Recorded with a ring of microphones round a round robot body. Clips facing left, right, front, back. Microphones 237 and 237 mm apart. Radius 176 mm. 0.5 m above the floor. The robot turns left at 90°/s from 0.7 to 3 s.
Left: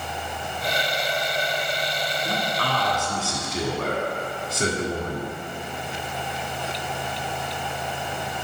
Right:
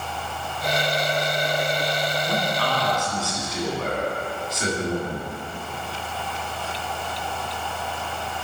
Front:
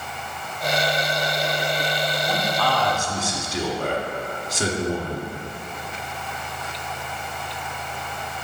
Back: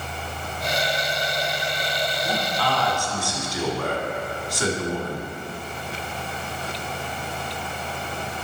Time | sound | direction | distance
2.2 | a man speaking | 125° left | 1.6 m